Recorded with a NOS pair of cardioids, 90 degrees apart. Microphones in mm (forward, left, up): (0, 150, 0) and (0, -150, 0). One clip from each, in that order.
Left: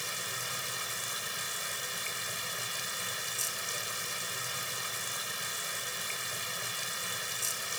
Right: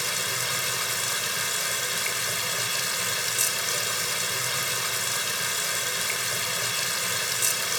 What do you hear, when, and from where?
0.0 s running water: 65° right